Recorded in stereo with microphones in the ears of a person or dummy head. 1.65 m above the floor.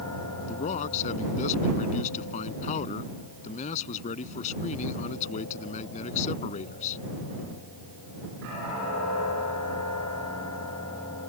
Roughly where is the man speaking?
Left.